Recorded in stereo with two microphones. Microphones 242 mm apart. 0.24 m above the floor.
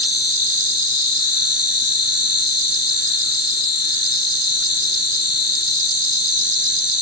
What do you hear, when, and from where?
0.0 s an insect: 70° right (ahead or behind)